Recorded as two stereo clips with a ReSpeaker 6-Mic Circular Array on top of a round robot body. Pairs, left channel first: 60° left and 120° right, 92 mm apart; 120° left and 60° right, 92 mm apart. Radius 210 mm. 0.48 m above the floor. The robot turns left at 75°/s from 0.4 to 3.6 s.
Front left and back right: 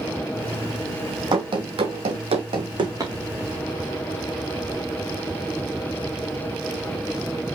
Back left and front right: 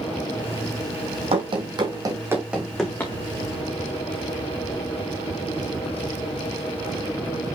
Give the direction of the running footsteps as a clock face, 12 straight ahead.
3 o'clock.